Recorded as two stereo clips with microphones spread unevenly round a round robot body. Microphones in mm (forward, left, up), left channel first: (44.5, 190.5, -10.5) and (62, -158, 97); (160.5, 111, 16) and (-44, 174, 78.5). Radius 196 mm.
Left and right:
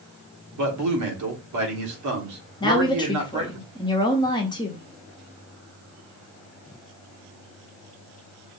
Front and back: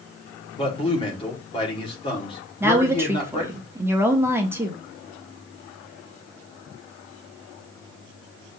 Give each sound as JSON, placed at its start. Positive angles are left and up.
{"t": 0.5, "sound": "a man speaking", "azimuth_deg": -50, "distance_m": 1.7}
{"t": 2.6, "sound": "a woman speaking", "azimuth_deg": 65, "distance_m": 0.9}